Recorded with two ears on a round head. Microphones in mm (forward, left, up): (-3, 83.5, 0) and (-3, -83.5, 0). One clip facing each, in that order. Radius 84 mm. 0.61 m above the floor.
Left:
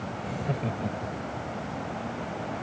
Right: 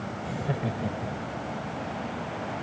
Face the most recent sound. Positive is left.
turn(degrees=-10)  # may be behind; listen again after turning